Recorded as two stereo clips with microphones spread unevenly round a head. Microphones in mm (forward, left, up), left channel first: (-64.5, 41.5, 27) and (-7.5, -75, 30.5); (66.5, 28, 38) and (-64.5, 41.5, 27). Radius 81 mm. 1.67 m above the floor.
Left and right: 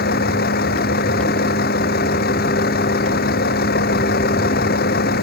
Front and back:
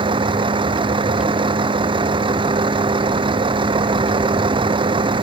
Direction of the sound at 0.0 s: 120° left.